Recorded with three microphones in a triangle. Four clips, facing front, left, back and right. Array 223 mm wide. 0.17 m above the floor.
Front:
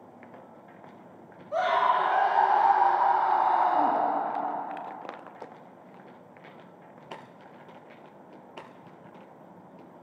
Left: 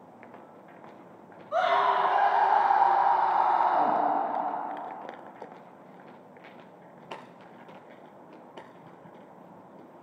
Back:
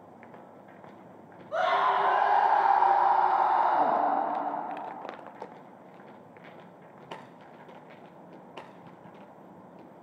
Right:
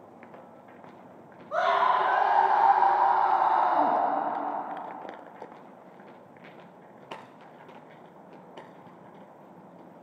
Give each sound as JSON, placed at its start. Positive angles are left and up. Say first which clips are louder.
{"t": 1.5, "sound": "a scream", "louder": "even, front 1 dB", "azimuth_deg": -100, "distance_m": 2.0}